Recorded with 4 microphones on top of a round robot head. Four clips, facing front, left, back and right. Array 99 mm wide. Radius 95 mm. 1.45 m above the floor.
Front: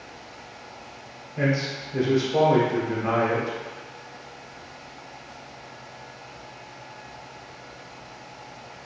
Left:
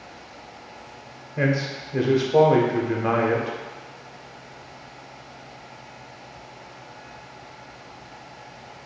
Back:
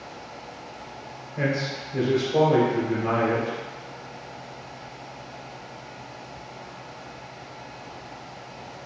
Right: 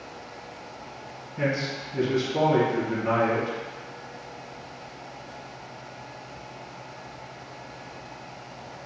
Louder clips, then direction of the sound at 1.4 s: Left 3 dB, front 1 dB; 85° left.